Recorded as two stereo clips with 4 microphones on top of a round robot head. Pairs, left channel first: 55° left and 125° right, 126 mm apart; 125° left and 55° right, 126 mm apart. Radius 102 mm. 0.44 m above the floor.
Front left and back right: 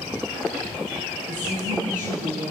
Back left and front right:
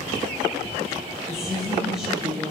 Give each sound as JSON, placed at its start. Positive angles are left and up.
{"t": 1.3, "sound": "a woman speaking", "azimuth_deg": -140, "distance_m": 7.0}